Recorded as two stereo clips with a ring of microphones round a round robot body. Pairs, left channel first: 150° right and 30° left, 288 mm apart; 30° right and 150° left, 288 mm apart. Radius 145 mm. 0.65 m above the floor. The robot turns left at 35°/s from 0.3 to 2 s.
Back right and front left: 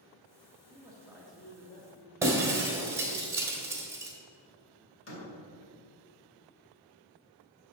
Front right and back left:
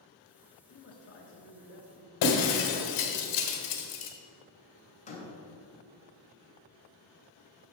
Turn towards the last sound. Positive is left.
turn(degrees=-100)